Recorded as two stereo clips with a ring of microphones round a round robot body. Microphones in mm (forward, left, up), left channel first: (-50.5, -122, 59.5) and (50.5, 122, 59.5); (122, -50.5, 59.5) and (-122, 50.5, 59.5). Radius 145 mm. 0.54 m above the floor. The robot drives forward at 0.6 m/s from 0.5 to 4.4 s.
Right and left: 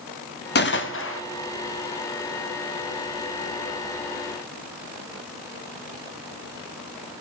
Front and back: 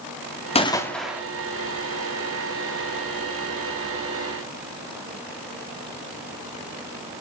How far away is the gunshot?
About 0.8 m.